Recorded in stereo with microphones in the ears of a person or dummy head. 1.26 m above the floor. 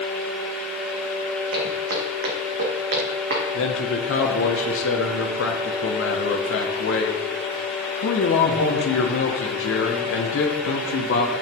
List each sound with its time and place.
1.5 s footsteps: 65° right (ahead or behind), 3 m
3.5 s a man speaking: 65° left (ahead or behind), 1.3 m